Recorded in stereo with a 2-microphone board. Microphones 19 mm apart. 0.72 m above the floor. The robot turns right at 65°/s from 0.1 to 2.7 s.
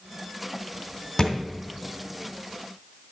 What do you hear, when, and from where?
1.2 s a thud: 15° left (ahead or behind), 2 m; by 1.3 s 25° left (ahead or behind), 2 m